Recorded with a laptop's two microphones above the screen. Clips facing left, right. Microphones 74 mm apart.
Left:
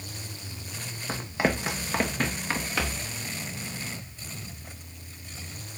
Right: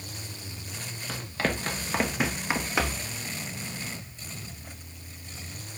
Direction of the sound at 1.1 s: 30° left (ahead or behind).